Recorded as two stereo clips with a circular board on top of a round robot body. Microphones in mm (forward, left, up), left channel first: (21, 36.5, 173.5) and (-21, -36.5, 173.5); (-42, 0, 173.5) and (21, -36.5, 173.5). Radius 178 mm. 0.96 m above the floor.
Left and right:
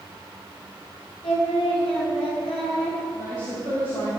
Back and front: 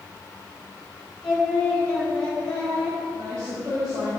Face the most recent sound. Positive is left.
turn(degrees=15)